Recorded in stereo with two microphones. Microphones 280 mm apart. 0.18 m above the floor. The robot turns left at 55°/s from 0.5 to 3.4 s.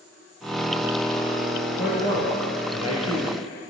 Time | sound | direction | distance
1.8 | a man speaking | 145° left | 4 m